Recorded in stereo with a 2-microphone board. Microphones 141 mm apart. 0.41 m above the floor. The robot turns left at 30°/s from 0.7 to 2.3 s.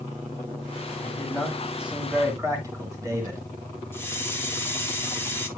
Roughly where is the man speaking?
Centre.